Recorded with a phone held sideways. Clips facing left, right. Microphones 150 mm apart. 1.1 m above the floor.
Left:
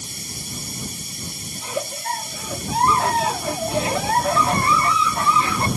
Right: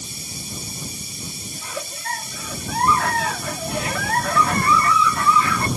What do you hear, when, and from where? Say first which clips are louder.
0.0 s running water: even; 65° left (ahead or behind)
1.6 s a giggle: left 7 dB; 25° left (ahead or behind)